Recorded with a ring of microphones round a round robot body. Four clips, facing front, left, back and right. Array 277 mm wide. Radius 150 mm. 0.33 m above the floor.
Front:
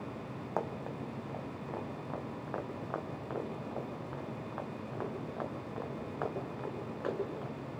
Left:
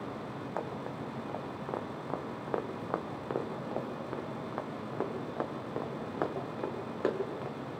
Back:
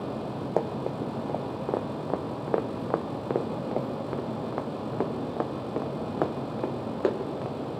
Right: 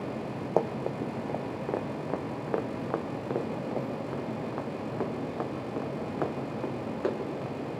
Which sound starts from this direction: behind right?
Running footsteps, at 0.6 s.